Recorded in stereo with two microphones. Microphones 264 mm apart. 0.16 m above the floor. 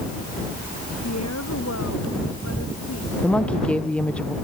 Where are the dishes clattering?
No dishes clattering in this recording.